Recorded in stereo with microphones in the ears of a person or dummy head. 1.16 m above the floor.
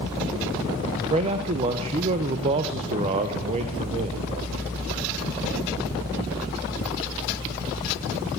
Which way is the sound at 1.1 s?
35° right (ahead or behind).